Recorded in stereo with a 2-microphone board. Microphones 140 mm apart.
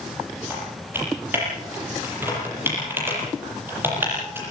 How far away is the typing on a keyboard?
About 9 m.